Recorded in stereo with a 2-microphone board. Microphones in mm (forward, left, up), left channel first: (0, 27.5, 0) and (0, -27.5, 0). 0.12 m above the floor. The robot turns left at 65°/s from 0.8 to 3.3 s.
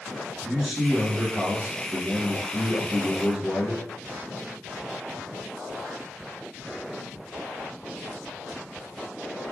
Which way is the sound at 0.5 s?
15° right.